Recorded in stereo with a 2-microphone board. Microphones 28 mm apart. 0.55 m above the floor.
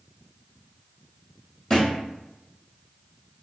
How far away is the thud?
About 1.7 m.